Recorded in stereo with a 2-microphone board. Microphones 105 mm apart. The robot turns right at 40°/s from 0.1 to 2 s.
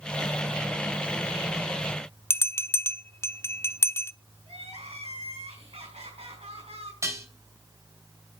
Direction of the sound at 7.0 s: 30° right (ahead or behind).